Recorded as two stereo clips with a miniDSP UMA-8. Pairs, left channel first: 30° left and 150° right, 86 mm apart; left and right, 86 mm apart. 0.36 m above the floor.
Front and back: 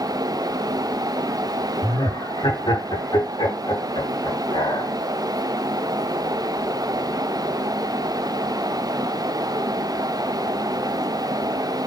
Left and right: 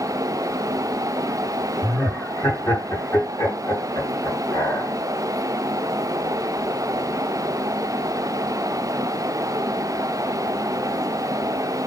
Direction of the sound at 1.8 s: 30° left.